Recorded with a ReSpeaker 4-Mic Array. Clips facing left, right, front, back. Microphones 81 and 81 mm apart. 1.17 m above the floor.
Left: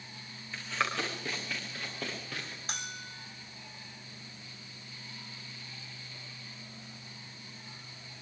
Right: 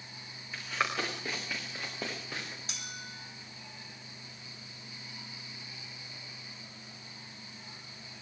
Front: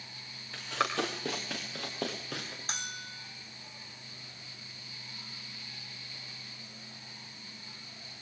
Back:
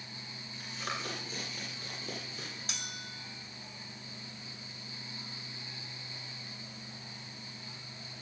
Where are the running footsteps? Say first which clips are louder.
Even, front 9 dB; 5° right, 7 m; by 2.6 s 15° right, 9.5 m.